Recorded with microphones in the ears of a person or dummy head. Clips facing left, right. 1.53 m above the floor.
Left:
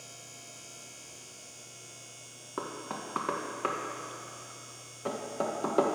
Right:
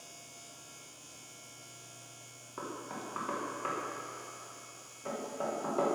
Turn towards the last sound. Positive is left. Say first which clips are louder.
# left 3 dB
turn(degrees=65)  # may be behind; listen again after turning